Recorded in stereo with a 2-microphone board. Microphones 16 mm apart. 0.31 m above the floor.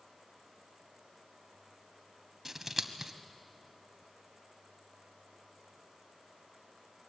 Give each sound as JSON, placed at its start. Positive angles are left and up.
{"t": 2.5, "sound": "scissors", "side_deg": -15, "distance_m": 1.4}